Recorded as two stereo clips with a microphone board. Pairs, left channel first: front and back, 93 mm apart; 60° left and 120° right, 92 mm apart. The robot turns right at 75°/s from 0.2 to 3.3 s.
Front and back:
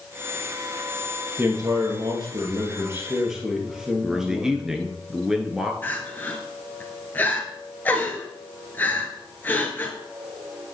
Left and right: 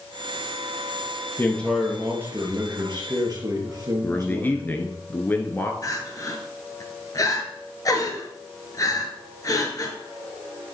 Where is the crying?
60° left, 1.5 m.